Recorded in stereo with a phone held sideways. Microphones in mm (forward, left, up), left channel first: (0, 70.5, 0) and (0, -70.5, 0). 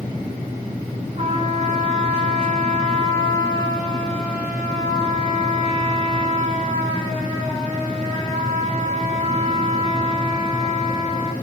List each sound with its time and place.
1.2 s a trumpet: 45° right (ahead or behind), 3 m